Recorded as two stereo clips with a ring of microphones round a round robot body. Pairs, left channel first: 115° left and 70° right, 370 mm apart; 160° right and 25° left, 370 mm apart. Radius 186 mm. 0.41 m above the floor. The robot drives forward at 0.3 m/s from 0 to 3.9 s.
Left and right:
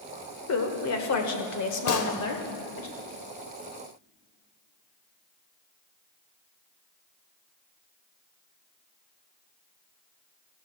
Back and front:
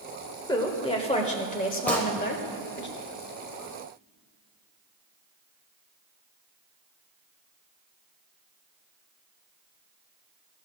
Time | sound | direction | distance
0.5 | a woman speaking | 130° left | 1.5 m
1.9 | a gunshot | 115° left | 1.1 m